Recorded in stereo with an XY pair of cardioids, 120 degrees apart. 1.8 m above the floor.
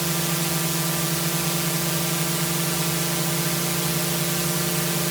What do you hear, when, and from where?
0.0 s a drone: 10° right